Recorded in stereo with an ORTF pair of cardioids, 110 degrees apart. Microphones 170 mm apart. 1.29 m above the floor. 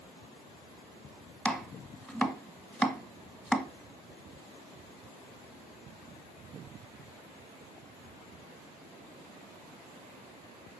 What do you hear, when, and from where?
1.4 s chopping: straight ahead, 0.9 m